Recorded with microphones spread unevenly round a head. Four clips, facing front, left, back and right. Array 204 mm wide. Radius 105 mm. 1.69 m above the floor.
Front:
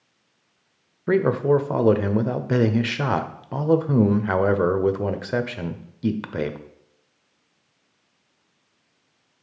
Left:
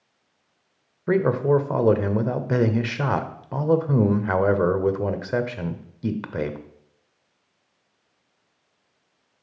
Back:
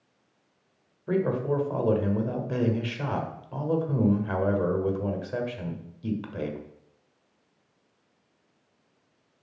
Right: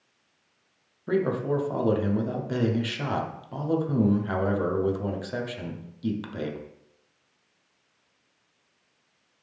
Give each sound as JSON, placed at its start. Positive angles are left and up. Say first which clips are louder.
{"t": 1.1, "sound": "a man speaking", "louder": "left 6 dB, front 7 dB", "azimuth_deg": 30, "distance_m": 0.9}